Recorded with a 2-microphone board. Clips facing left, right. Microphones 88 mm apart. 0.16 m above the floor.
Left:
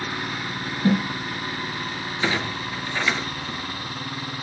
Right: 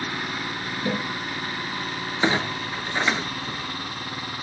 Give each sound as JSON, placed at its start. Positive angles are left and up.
{"t": 0.8, "sound": "a snare drum", "side_deg": 35, "distance_m": 2.5}
{"t": 2.2, "sound": "a clunk", "side_deg": -25, "distance_m": 0.9}